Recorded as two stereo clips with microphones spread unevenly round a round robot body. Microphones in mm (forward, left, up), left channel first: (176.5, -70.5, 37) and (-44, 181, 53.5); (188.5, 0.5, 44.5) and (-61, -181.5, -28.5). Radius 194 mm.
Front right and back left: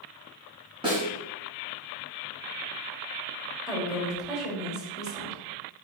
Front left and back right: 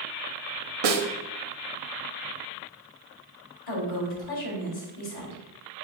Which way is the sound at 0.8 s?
150° right.